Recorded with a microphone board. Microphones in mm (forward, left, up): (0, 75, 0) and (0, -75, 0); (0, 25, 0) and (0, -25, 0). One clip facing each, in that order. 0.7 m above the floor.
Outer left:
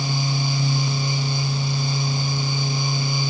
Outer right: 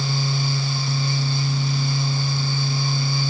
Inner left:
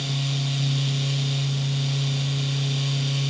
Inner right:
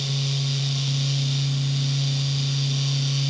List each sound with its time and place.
Only background noise.